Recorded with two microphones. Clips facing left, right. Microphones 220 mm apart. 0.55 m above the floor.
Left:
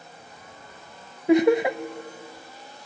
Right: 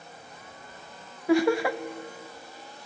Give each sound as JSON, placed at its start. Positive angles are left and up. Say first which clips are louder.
{"t": 1.3, "sound": "laughter", "louder": "left 4 dB", "side_deg": 20, "distance_m": 0.6}